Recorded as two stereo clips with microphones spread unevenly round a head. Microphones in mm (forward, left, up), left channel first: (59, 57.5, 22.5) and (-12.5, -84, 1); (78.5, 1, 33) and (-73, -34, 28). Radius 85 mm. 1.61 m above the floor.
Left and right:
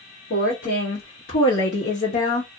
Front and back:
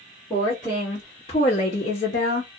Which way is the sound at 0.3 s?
105° left.